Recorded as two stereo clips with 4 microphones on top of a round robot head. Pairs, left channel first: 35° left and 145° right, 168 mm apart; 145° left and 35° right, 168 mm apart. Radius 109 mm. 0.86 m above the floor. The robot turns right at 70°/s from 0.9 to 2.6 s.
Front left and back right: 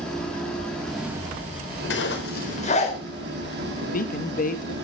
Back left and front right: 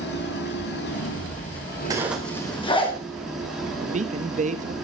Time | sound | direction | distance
0.0 | an engine running | 120° left | 6 m
1.9 | a zipper | 35° left | 4.5 m
3.8 | a man speaking | 5° left | 1.9 m